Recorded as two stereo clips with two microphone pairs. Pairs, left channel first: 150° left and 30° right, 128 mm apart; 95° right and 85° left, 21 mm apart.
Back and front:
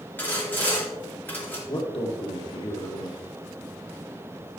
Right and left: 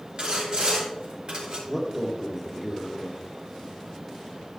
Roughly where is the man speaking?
Behind left.